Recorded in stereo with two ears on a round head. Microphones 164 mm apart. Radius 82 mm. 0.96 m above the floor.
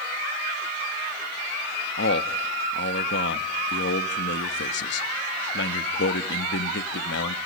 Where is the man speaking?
70° left (ahead or behind), 1.0 m.